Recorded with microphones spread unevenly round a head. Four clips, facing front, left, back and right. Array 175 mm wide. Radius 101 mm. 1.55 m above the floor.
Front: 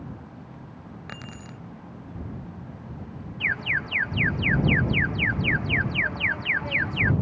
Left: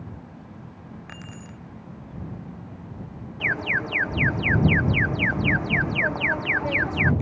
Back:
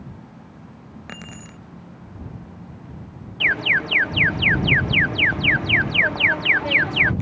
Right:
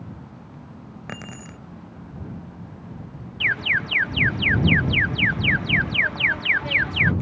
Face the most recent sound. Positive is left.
turn(degrees=145)